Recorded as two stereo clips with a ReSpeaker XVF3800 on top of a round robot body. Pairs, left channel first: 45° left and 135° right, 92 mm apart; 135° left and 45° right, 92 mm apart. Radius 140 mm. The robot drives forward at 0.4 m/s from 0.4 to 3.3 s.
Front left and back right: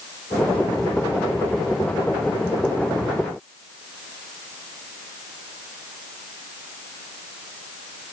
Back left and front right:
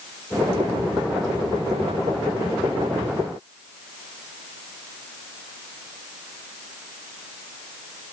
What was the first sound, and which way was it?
Only background noise.